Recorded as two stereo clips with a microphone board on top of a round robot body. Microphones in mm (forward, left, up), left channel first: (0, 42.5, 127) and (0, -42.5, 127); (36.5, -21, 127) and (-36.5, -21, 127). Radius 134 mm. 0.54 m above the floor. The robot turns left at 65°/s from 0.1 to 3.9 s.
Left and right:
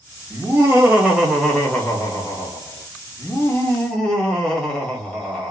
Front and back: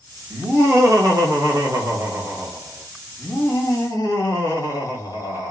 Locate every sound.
0.3 s laughter: 110° right, 1.3 m; by 5.5 s 15° left, 1.3 m